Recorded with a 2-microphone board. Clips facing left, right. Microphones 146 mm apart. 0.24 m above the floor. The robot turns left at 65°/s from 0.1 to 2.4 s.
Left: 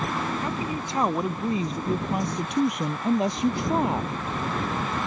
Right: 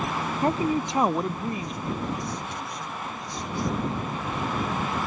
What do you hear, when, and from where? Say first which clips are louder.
0.4 s a woman speaking: right 5 dB; 130° right; by 4.2 s 100° left